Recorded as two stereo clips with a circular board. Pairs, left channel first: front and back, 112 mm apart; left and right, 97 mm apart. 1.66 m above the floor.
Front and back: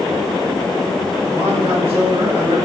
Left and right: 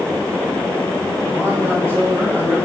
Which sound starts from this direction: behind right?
A man speaking, at 1.3 s.